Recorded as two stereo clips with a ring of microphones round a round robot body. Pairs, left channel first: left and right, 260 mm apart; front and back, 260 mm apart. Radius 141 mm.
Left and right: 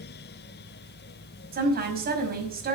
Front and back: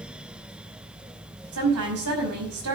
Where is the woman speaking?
140° right, 5 m.